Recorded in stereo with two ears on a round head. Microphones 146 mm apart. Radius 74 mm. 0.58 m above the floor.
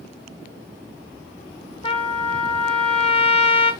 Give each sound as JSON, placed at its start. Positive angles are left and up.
{"t": 1.8, "sound": "a trumpet", "side_deg": 30, "distance_m": 0.9}